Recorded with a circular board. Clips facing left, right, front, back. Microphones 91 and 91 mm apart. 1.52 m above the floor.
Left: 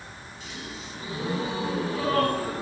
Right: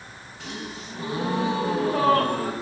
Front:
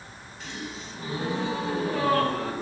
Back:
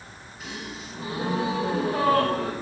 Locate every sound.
0.4 s a gasp: 95° right, 9.5 m